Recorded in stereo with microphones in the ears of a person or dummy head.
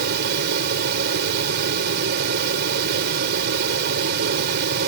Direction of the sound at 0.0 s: 60° right (ahead or behind).